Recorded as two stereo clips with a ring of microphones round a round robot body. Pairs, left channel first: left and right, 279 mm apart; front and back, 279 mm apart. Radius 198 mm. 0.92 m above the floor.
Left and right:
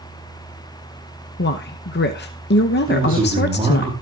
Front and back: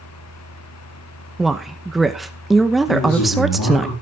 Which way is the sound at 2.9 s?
20° right.